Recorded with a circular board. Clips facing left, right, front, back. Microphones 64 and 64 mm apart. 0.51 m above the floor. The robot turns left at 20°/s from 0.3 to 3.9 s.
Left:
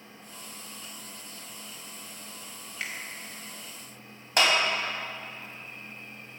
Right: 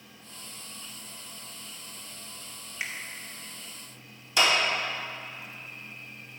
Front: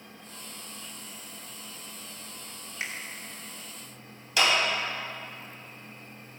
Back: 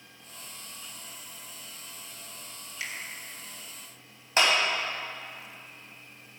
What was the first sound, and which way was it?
A finger snap, 20° right.